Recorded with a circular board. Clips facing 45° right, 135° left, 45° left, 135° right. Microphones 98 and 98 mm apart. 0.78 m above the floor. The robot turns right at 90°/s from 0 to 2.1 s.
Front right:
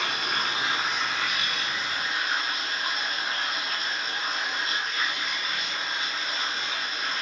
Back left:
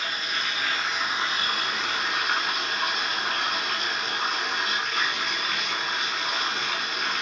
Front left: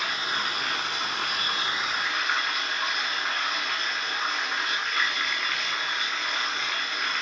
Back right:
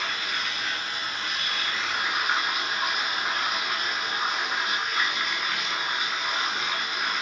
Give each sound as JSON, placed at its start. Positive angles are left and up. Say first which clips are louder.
{"t": 0.0, "sound": "running water", "louder": "front right 2 dB, front left 2 dB", "azimuth_deg": -35, "distance_m": 1.6}